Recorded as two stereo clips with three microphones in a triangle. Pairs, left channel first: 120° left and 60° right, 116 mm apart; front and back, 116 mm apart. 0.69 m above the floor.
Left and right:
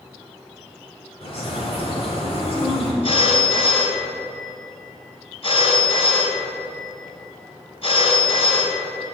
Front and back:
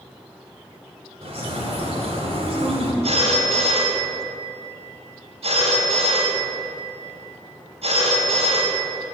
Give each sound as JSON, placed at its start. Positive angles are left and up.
{"t": 1.2, "sound": "a bird", "azimuth_deg": 150, "distance_m": 2.5}
{"t": 3.0, "sound": "a phone ringing", "azimuth_deg": 155, "distance_m": 4.0}